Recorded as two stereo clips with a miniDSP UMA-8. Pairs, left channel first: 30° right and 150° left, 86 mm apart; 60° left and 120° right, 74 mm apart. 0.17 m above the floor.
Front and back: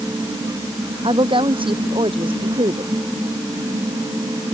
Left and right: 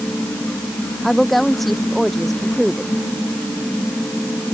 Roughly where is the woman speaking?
Behind left.